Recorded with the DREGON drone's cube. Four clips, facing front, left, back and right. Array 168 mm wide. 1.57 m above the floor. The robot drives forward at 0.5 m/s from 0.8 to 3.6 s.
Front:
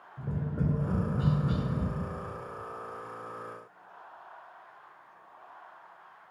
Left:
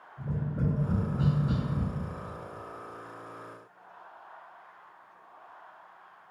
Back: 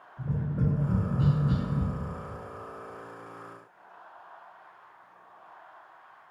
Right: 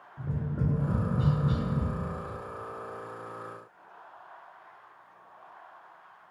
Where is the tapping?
35° right, 1.2 m; by 1.9 s 100° right, 1.1 m.